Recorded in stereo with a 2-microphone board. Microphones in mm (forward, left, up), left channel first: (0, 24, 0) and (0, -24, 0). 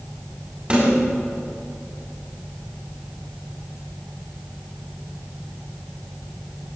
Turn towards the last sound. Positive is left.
turn(degrees=-25)  # may be behind; listen again after turning